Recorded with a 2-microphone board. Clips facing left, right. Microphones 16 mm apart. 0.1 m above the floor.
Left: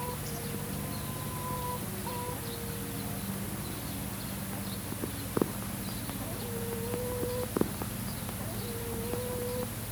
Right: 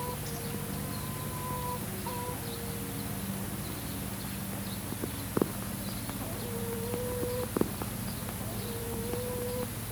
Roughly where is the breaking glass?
No breaking glass in this recording.